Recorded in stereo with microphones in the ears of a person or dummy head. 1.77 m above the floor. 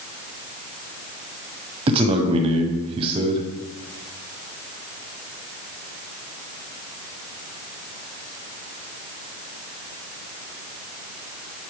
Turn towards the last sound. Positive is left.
turn(degrees=-30)  # may be behind; listen again after turning